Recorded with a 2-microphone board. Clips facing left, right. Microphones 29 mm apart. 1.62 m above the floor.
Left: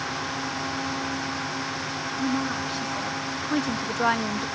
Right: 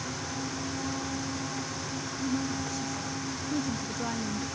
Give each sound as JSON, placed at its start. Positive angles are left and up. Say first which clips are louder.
{"t": 2.2, "sound": "a woman speaking", "louder": "left 5 dB", "side_deg": 50}